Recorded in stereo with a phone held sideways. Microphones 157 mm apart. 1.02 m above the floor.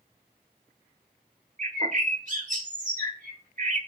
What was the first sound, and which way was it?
A bird, 55° right (ahead or behind).